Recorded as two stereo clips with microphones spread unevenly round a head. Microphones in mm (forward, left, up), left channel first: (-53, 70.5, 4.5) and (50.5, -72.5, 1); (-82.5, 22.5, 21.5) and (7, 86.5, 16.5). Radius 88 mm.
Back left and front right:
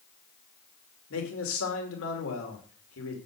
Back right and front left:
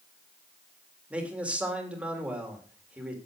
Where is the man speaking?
115° left, 3 m.